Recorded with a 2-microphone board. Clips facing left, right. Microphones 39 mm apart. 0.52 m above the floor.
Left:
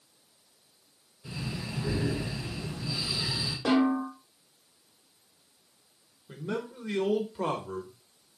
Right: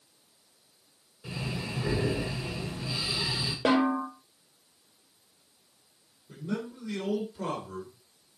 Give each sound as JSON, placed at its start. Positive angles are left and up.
{"t": 1.2, "sound": "breathing", "side_deg": -50, "distance_m": 2.5}
{"t": 3.6, "sound": "a snare drum", "side_deg": -55, "distance_m": 2.0}
{"t": 6.3, "sound": "a man speaking", "side_deg": 40, "distance_m": 2.0}